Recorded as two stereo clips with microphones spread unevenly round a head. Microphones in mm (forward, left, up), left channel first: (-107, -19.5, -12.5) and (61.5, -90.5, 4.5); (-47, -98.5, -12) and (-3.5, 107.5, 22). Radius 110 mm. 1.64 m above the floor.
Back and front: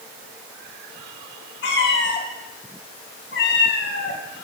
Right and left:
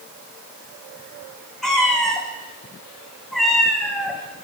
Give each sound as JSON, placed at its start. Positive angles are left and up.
{"t": 1.6, "sound": "a cat meowing", "azimuth_deg": 165, "distance_m": 3.0}